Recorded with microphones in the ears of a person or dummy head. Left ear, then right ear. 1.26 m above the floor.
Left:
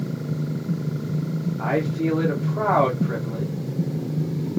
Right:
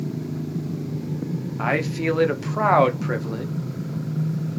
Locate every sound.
1.6 s a man speaking: 65° right (ahead or behind), 0.7 m